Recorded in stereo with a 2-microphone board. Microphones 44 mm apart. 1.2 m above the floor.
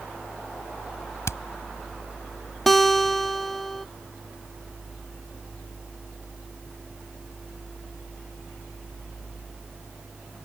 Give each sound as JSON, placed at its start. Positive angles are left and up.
{"t": 1.3, "sound": "hammering", "side_deg": 80}
{"t": 2.7, "sound": "a guitar", "side_deg": 5}